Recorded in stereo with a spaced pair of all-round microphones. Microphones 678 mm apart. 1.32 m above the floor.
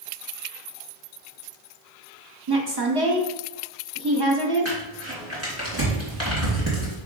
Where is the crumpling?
20° right (ahead or behind), 3 m.